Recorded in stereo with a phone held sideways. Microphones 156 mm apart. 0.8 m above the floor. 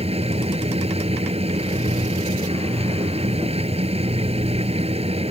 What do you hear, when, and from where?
0.0 s a machine running: 40° right (ahead or behind)